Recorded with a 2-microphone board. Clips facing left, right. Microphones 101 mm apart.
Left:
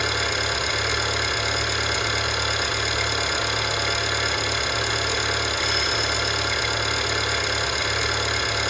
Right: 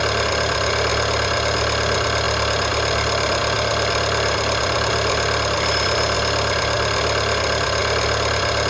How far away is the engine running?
About 3 m.